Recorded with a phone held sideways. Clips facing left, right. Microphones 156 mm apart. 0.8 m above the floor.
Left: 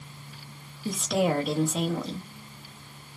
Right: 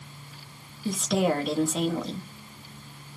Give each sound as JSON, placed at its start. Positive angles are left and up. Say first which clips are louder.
{"t": 0.8, "sound": "a woman speaking", "louder": "right 1 dB", "side_deg": 0, "distance_m": 1.3}